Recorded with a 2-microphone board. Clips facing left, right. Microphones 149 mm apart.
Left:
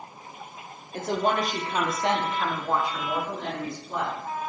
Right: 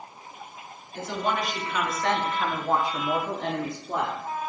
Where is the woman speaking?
55° left (ahead or behind), 1.5 m; by 4.3 s 55° right (ahead or behind), 1.7 m.